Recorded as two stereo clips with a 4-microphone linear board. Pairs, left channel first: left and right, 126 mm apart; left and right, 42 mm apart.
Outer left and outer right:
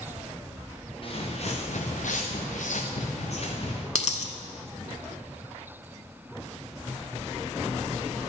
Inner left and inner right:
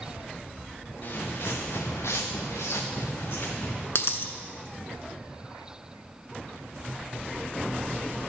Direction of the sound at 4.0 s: 65° left (ahead or behind).